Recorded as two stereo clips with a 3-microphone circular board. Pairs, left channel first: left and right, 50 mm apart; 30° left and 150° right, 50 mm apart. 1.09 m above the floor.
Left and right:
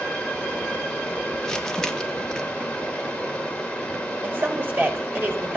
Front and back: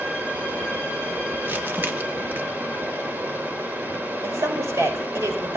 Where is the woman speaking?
140° right, 5 m.